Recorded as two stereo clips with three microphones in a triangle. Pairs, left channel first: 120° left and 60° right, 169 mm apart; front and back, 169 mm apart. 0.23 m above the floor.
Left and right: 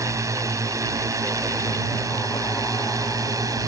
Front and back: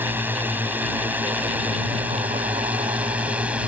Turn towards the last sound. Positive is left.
turn(degrees=-105)